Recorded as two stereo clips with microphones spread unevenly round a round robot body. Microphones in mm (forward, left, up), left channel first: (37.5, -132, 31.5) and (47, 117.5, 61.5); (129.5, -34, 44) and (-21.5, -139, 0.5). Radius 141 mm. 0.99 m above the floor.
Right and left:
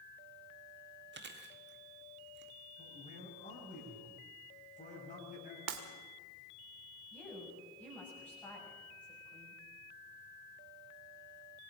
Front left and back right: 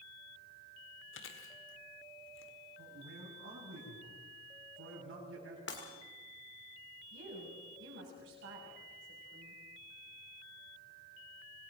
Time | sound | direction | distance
1.1 | chewing | 40° left | 1.7 m
2.8 | a man speaking | 155° right | 6.5 m
5.7 | breaking glass | 85° left | 1.9 m
7.1 | a woman speaking | 175° right | 6.5 m